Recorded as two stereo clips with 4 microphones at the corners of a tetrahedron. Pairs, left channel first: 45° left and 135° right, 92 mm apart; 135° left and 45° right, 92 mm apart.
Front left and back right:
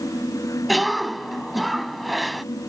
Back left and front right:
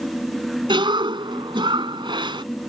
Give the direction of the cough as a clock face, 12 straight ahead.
2 o'clock.